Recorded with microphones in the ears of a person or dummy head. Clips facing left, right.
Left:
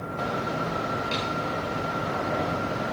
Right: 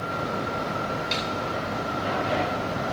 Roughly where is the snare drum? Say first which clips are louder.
Even; right.